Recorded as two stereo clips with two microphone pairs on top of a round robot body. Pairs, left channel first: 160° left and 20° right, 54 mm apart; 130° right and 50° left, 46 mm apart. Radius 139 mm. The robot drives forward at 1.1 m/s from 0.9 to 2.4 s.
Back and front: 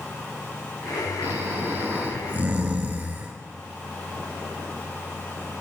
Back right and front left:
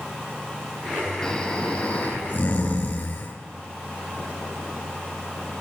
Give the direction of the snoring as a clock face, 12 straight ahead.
2 o'clock.